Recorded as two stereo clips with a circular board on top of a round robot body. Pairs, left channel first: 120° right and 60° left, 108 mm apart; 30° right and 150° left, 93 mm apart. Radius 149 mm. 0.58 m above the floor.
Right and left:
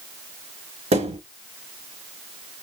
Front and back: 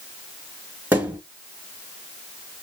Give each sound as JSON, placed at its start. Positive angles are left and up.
{"t": 0.9, "sound": "a thud", "azimuth_deg": 75, "distance_m": 3.0}